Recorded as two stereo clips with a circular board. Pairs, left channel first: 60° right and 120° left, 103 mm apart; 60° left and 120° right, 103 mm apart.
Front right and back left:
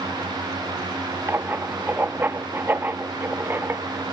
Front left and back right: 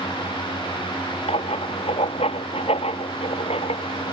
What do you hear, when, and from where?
1.3 s writing: 50° left